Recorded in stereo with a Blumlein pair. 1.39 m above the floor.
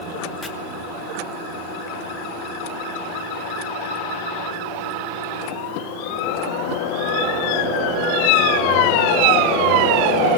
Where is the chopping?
15° left, 2 m.